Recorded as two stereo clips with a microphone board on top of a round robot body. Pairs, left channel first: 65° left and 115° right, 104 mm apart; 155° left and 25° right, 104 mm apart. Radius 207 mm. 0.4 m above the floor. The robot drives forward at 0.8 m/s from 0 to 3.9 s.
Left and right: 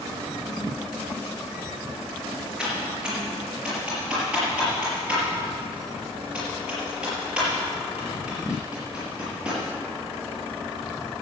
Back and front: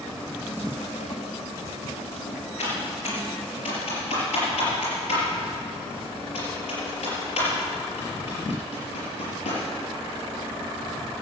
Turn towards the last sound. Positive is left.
turn(degrees=165)